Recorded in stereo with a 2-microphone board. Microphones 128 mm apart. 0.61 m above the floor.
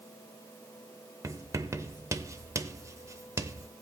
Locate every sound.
1.2 s writing: 25° right (ahead or behind), 0.6 m